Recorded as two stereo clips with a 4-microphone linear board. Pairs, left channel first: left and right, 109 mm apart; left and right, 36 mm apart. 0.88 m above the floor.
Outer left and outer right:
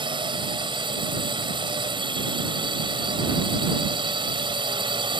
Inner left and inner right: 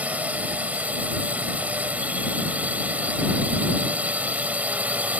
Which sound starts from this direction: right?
A drone, at 0.0 s.